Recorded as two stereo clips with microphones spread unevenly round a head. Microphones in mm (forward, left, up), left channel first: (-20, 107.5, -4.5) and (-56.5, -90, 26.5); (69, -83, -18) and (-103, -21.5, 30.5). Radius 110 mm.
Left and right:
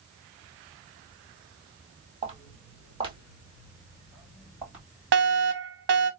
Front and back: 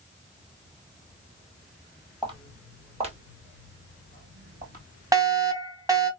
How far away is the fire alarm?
About 1.3 m.